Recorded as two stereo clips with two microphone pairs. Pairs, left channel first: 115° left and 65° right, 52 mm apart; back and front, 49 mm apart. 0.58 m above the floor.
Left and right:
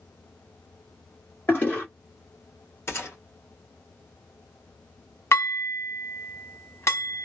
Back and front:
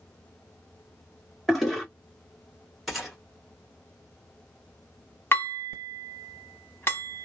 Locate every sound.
1.5 s a toilet flushing: 90° left, 1.4 m
2.9 s a gunshot: 85° left, 1.3 m
5.3 s dishes clattering: 140° left, 1.3 m